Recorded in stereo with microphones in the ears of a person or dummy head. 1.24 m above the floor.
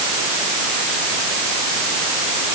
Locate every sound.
Only background noise.